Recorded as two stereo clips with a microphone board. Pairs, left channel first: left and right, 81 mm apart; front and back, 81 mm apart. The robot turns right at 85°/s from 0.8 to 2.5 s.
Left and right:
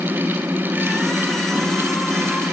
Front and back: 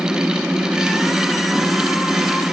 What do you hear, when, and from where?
Only background noise.